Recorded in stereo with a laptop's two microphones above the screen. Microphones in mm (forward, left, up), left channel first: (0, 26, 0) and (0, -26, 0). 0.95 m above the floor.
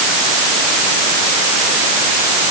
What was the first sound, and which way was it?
Only background noise.